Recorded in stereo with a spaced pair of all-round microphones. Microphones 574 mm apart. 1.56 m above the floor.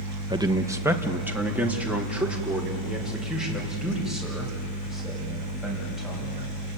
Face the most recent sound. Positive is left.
turn(degrees=0)  # may be behind; listen again after turning